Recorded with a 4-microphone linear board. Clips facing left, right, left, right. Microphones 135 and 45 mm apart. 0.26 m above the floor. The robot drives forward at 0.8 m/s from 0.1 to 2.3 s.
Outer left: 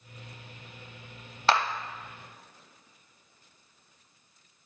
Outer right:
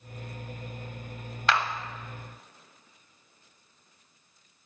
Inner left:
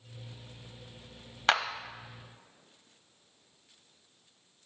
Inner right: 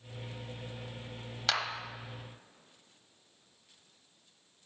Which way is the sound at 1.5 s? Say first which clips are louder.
Outer left 2 dB, inner left 6 dB; 35° left (ahead or behind).